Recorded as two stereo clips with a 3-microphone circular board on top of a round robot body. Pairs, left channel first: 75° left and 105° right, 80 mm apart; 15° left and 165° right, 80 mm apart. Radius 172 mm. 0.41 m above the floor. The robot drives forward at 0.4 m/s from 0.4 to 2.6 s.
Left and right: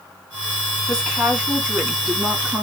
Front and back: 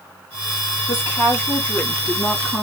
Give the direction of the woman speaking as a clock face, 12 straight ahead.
1 o'clock.